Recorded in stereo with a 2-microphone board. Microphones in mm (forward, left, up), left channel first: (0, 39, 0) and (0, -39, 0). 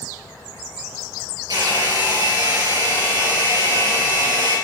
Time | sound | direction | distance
1.5 | a hair dryer | 60° right (ahead or behind) | 4.5 m